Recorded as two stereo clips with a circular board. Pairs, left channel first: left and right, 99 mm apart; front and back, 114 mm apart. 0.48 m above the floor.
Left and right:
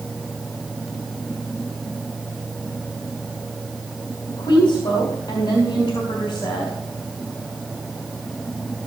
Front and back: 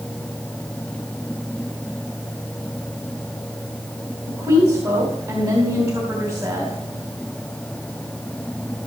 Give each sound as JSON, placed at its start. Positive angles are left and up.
{"t": 4.3, "sound": "a woman speaking", "azimuth_deg": 125, "distance_m": 3.0}